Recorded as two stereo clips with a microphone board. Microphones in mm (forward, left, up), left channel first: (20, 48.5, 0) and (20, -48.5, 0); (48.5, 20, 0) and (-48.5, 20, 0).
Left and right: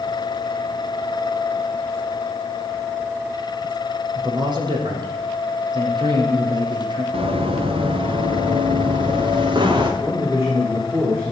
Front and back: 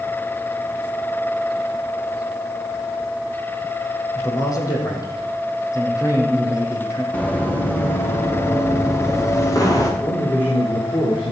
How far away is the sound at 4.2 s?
About 5 m.